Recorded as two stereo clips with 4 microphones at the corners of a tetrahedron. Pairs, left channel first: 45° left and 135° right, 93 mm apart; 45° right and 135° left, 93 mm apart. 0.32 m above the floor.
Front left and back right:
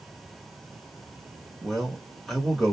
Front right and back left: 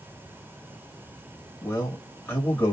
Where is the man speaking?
40° right, 1.1 m.